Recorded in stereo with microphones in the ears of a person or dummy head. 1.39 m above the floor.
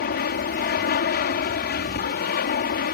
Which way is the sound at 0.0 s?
45° left (ahead or behind).